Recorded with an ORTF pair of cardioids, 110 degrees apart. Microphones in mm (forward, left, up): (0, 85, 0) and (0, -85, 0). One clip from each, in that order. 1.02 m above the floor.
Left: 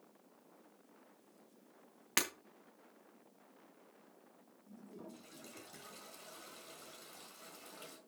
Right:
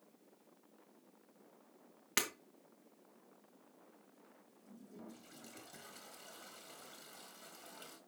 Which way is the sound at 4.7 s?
5° left.